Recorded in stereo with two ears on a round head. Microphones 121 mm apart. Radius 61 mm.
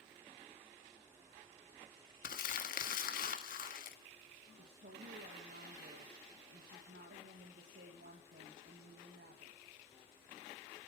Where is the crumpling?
65° left (ahead or behind), 1.5 m.